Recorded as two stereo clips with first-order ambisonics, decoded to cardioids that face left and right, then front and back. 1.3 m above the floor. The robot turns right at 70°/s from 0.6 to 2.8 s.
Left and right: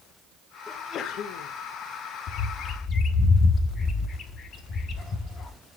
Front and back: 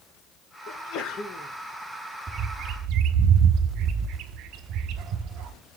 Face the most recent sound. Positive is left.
turn(degrees=150)